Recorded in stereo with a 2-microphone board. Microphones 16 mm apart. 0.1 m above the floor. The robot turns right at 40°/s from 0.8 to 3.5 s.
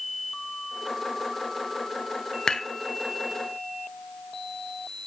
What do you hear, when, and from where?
2.5 s dishes clattering: 45° left (ahead or behind), 1.1 m; by 2.7 s 40° left (ahead or behind), 1.1 m